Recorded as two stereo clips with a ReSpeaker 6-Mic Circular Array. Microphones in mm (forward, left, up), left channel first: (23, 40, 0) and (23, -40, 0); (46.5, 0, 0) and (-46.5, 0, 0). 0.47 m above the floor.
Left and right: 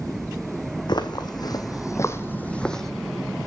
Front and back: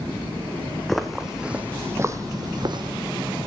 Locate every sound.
0.9 s footsteps: 85° left, 1.1 m; by 2.9 s 175° left, 0.8 m